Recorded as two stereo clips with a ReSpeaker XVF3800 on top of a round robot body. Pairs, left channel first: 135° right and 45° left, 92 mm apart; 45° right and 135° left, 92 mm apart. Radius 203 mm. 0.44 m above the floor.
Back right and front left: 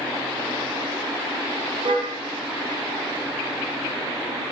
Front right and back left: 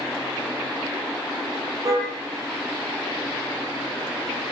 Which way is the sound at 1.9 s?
80° left.